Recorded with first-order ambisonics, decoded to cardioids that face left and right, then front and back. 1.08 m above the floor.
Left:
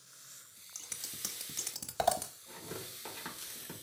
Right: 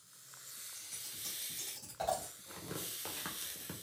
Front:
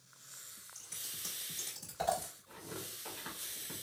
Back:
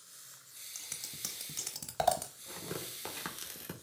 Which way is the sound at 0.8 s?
130° left.